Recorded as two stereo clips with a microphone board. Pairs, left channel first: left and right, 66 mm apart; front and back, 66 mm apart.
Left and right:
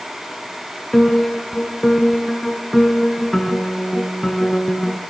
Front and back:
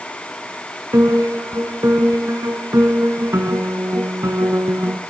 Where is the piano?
175° left, 1.0 m.